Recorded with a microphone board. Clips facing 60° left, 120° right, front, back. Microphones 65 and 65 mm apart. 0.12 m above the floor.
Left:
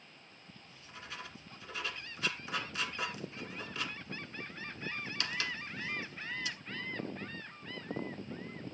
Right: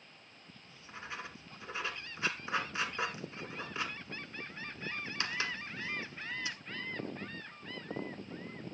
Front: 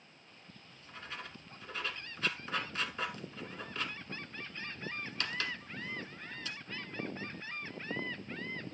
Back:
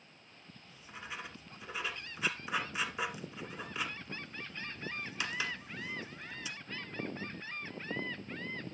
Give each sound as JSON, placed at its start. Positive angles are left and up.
{"t": 0.7, "sound": "writing", "azimuth_deg": -120, "distance_m": 1.0}